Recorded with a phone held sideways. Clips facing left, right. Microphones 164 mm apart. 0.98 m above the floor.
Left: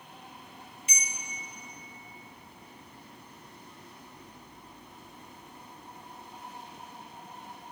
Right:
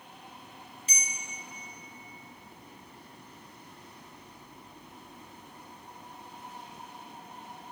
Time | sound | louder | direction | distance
0.9 | a bell | left 1 dB | 35° right (ahead or behind) | 1.4 m